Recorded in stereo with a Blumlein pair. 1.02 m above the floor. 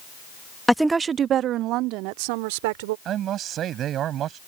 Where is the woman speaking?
5° left; by 3.0 s 50° right.